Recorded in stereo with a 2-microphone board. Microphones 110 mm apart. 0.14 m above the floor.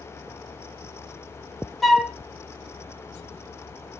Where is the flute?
Centre (ahead or behind), 0.6 m.